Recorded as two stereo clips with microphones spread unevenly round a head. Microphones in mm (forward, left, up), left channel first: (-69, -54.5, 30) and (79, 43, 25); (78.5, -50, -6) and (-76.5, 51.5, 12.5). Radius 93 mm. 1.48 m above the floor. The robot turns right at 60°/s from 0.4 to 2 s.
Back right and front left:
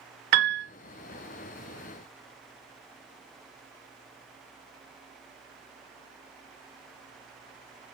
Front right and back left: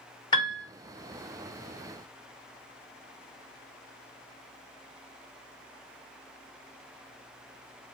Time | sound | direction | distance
0.3 | a piano | 30° left | 0.6 m